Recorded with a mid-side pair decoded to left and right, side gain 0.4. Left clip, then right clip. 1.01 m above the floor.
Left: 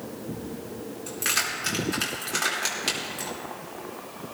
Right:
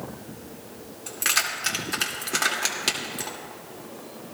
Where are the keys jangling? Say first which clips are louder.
Right 2 dB; 35° right, 2 m.